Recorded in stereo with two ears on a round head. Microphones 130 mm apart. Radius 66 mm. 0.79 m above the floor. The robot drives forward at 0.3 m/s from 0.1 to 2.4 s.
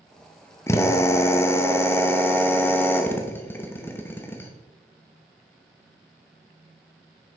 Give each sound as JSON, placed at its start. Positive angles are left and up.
{"t": 0.7, "sound": "a drill", "side_deg": 20, "distance_m": 0.6}